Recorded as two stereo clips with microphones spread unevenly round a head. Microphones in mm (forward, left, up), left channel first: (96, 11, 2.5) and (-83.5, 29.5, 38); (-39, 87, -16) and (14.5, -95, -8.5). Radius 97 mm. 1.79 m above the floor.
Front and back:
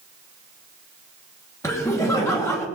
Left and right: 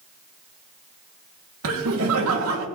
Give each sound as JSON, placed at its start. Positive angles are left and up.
{"t": 1.6, "sound": "laughter", "azimuth_deg": -85, "distance_m": 3.0}